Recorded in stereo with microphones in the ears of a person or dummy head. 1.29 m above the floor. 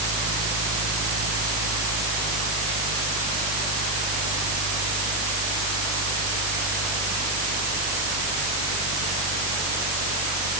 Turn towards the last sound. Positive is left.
turn(degrees=-70)  # may be behind; listen again after turning